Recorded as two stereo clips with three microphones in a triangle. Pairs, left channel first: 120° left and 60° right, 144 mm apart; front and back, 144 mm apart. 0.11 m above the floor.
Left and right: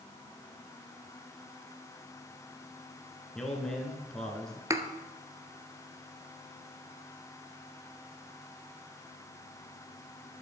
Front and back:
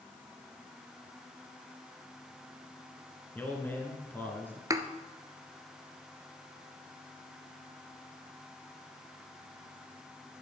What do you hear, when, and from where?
3.4 s a man speaking: 45° left, 1.7 m
4.7 s a thud: 120° right, 0.7 m